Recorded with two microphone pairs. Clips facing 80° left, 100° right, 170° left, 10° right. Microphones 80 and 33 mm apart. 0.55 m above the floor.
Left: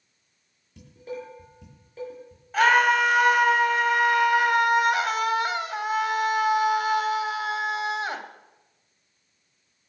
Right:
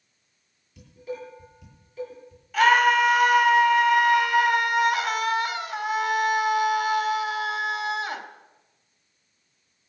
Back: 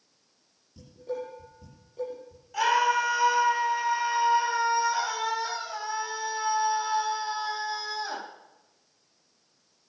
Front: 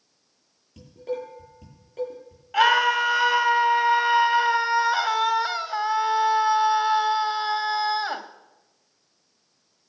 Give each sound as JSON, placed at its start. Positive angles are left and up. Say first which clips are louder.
{"t": 0.8, "sound": "dishes clattering", "louder": "right 1 dB, front 3 dB", "azimuth_deg": 25, "distance_m": 8.5}
{"t": 2.5, "sound": "a scream", "louder": "right 1 dB, front 5 dB", "azimuth_deg": 25, "distance_m": 3.0}